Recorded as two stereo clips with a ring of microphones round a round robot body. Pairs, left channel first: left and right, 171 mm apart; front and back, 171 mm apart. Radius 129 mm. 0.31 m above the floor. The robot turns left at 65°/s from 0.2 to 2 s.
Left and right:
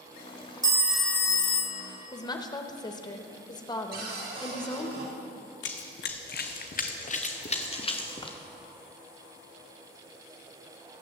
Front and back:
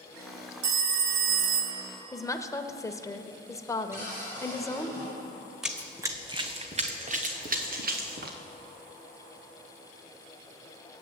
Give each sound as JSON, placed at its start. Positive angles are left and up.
{"t": 0.6, "sound": "a phone ringing", "azimuth_deg": -155, "distance_m": 1.2}
{"t": 2.1, "sound": "a woman speaking", "azimuth_deg": 50, "distance_m": 0.9}
{"t": 3.9, "sound": "a cupboard door", "azimuth_deg": -100, "distance_m": 3.5}
{"t": 5.6, "sound": "running footsteps", "azimuth_deg": 95, "distance_m": 1.2}